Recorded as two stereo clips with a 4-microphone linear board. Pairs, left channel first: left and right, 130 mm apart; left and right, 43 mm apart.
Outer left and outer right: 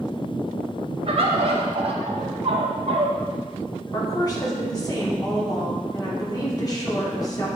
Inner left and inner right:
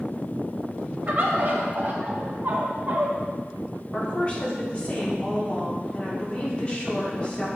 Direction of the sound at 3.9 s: 30° left (ahead or behind).